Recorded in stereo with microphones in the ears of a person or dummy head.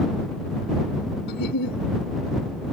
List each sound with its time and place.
1.3 s a giggle: 60° left (ahead or behind)